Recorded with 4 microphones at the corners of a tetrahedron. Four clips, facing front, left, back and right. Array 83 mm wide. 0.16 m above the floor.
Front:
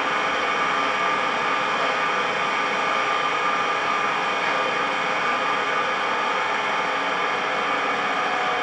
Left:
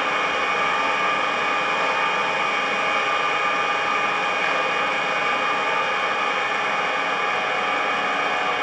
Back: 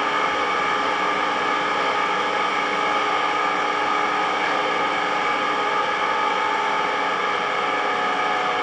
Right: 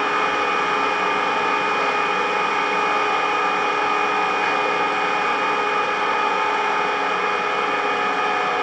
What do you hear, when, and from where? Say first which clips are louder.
0.0 s an engine running: right 2 dB, back 1 dB; 90° right, 3 m